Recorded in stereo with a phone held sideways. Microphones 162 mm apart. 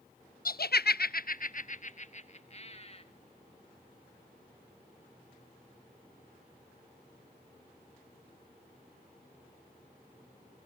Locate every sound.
0.5 s laughter: 65° left (ahead or behind), 0.6 m; by 3.0 s 40° left (ahead or behind), 2 m